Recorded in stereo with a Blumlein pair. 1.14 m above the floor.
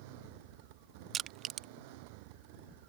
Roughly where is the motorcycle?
Ahead right.